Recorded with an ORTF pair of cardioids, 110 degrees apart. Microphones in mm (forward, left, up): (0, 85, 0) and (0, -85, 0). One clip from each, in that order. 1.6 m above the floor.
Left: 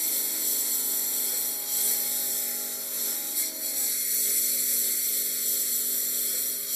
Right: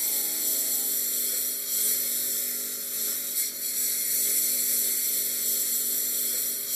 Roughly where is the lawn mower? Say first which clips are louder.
Even; ahead.